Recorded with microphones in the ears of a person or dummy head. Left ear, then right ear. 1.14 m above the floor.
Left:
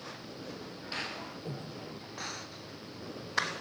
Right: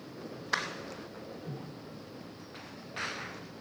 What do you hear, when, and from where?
1.4 s breathing: 65° left (ahead or behind), 1.7 m